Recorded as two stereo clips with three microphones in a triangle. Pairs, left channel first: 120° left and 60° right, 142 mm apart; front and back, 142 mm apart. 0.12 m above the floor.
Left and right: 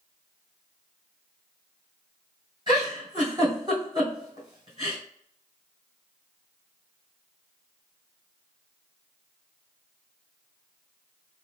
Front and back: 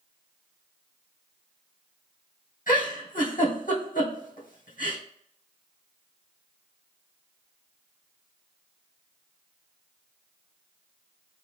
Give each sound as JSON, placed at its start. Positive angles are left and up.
{"t": 2.7, "sound": "a giggle", "azimuth_deg": 0, "distance_m": 2.5}